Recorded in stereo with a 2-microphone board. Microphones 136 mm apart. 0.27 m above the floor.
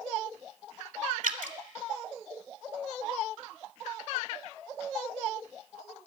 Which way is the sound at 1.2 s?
90° right.